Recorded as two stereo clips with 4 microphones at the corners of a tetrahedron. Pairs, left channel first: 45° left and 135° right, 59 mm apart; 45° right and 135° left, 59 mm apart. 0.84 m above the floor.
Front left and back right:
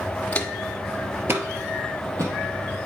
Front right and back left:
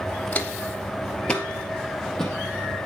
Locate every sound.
0.3 s footsteps: straight ahead, 0.9 m; by 2.9 s 130° right, 3 m